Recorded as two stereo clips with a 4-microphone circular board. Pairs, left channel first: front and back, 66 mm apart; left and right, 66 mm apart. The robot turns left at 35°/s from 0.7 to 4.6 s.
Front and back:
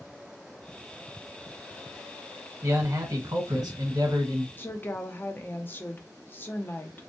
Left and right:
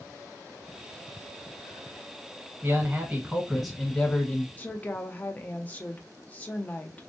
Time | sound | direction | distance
2.6 | a man speaking | 140° right | 1.2 m
4.6 | a woman speaking | 40° left | 0.6 m